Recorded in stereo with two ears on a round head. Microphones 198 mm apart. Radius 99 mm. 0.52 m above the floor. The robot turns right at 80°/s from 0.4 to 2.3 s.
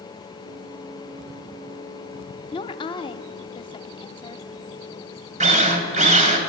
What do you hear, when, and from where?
2.5 s a woman speaking: 20° left (ahead or behind), 0.8 m
5.4 s a drill: 35° right (ahead or behind), 2 m